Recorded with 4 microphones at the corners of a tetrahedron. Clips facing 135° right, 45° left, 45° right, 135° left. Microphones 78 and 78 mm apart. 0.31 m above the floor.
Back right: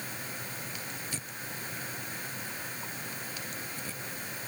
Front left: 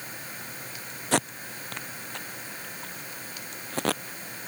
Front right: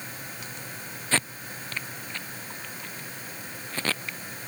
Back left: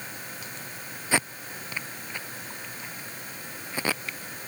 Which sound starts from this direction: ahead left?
Tape being pulled, at 1.1 s.